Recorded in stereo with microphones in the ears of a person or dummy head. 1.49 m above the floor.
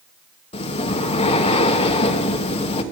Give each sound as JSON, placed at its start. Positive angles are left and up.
{"t": 0.5, "sound": "breathing", "side_deg": 35, "distance_m": 1.1}